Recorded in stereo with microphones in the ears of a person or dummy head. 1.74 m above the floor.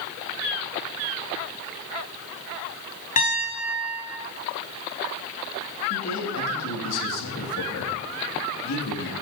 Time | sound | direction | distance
3.2 | a piano | 40° left (ahead or behind) | 2.5 m
5.9 | a man speaking | 80° left | 3.5 m